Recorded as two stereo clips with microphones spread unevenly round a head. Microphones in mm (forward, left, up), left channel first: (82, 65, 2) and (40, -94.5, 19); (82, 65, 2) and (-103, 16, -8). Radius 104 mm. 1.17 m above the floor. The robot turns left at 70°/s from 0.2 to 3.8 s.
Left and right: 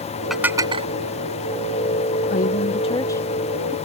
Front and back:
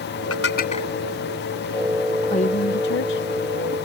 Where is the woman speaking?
70° left; by 3.8 s 30° right.